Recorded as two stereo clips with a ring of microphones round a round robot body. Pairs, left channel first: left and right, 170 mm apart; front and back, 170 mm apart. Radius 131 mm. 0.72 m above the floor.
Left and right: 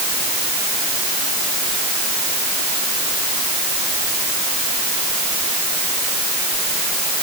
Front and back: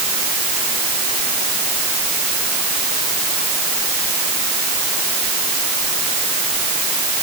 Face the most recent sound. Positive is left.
No sound to turn to.